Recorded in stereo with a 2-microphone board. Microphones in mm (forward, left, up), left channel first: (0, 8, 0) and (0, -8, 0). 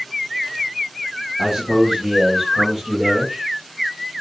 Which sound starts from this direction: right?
A man speaking, at 1.4 s.